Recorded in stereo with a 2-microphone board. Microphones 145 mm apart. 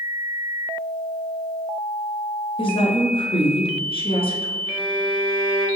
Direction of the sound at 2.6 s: 40° left (ahead or behind).